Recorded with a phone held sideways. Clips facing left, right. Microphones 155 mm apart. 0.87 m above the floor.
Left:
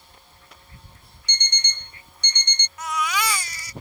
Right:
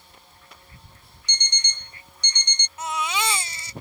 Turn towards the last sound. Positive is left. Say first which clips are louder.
# left 1 dB
turn(degrees=-25)  # may be behind; listen again after turning